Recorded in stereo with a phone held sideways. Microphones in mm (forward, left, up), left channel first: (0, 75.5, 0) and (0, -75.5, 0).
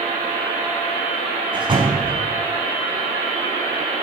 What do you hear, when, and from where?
1.5 s a door slam: 35° right (ahead or behind), 4.5 m